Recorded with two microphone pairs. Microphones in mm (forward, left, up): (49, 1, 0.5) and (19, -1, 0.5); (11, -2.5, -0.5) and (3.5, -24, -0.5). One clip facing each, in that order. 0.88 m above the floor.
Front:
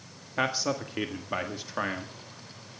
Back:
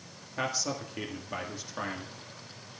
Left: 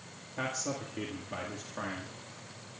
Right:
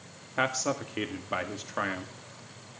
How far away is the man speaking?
About 1.7 m.